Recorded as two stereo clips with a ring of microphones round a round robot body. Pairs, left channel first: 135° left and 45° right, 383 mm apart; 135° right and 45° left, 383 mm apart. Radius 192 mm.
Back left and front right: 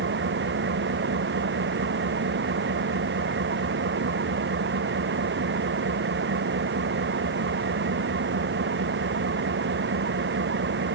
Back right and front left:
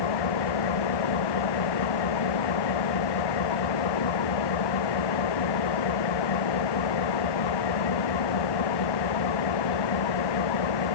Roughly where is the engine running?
Right.